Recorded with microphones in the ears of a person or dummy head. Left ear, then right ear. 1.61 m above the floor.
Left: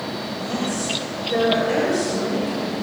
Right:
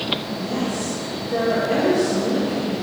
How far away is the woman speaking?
About 10 m.